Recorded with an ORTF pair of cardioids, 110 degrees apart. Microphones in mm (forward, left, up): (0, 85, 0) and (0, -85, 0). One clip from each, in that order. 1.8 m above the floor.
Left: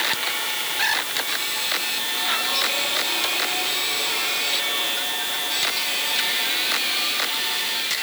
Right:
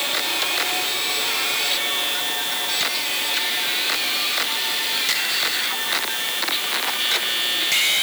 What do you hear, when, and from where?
Only background noise.